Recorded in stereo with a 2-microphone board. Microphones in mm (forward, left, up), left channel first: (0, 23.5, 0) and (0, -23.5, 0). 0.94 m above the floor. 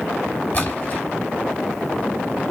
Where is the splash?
40° left (ahead or behind), 1.3 m.